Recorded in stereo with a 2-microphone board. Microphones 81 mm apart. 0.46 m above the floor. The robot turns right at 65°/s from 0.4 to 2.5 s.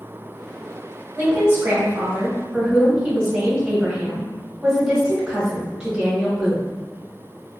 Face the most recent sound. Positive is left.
turn(degrees=-15)